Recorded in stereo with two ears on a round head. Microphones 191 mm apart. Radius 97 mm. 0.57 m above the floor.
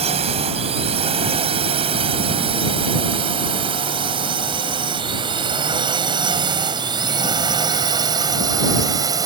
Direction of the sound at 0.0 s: 30° right (ahead or behind).